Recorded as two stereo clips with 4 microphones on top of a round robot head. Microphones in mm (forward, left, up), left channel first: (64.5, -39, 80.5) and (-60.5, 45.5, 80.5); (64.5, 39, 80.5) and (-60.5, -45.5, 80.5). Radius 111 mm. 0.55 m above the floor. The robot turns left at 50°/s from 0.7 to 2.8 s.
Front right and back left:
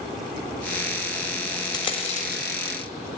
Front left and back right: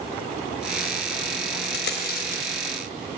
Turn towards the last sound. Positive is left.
turn(degrees=-25)